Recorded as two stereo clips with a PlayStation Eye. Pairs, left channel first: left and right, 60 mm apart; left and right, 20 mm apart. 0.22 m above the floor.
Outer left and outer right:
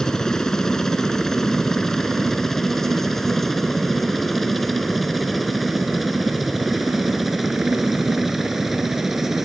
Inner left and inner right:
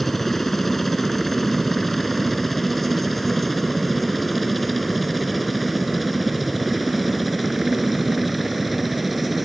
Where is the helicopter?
10° left (ahead or behind); by 9.5 s 5° right (ahead or behind).